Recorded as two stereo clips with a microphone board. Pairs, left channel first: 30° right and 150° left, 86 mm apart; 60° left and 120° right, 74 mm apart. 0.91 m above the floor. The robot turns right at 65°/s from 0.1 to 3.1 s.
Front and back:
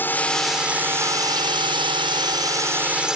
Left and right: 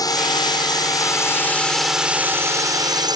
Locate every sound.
0.0 s a drone: 35° left; by 3.2 s 130° right